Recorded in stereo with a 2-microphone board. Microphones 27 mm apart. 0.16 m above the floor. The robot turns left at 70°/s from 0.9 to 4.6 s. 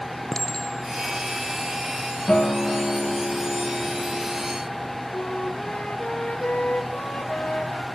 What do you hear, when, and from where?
0.3 s a clink: 25° left (ahead or behind), 1.5 m; by 2.1 s 55° left (ahead or behind), 1.5 m
2.3 s a guitar: 120° left, 8.5 m; by 4.6 s 45° right, 8.5 m
5.1 s a flute: 60° left (ahead or behind), 3 m